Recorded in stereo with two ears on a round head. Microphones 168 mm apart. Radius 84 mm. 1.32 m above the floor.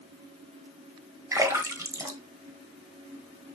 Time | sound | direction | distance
1.3 | a splash | 15° right (ahead or behind) | 1.5 m